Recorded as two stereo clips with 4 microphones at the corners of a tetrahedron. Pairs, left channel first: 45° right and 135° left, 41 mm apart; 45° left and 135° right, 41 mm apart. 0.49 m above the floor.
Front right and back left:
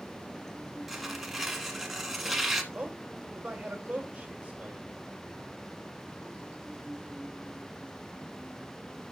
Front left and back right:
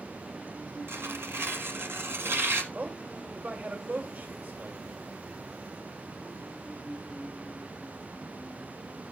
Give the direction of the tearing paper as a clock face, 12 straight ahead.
5 o'clock.